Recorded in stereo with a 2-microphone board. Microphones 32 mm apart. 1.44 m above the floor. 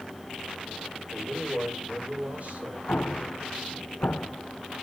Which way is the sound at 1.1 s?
50° right (ahead or behind).